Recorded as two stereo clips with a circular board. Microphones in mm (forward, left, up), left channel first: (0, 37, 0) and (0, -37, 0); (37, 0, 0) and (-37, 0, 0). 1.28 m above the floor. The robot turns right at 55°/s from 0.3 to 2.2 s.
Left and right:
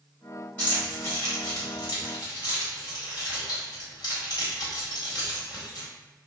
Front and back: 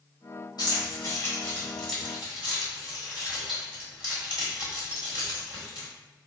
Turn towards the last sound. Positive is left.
turn(degrees=105)